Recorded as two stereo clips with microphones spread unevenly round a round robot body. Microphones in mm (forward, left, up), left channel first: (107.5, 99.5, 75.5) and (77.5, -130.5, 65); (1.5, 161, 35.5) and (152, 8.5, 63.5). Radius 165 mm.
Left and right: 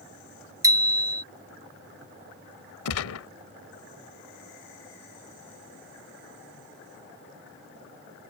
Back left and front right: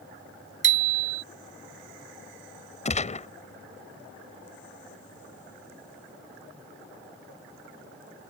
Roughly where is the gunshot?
Left.